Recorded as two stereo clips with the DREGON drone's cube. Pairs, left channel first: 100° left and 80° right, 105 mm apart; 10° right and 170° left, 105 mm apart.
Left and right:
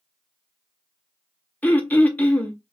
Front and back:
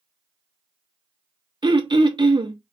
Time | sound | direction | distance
1.6 | throat clearing | 165° left | 0.6 m